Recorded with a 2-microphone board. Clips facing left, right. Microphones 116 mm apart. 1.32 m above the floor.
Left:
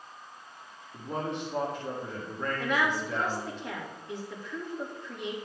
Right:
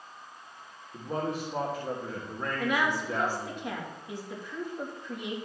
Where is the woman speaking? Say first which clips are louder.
Right 1 dB; 10° right (ahead or behind), 3 m.